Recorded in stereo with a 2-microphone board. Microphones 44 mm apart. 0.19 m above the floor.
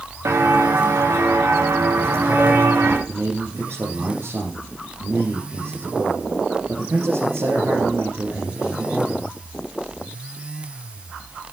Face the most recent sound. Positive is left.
turn(degrees=-75)  # may be behind; listen again after turning